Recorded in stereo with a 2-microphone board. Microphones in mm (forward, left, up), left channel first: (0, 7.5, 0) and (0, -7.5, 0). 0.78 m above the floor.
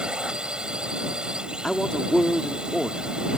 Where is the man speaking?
35° left (ahead or behind).